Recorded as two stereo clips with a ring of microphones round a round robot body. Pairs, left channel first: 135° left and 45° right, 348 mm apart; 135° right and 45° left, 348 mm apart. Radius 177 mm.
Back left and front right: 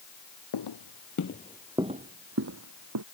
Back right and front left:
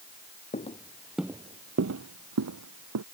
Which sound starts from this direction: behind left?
Footsteps, at 0.5 s.